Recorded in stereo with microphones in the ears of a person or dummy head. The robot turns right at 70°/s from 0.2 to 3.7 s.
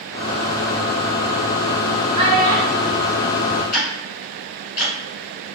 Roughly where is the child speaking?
Behind right.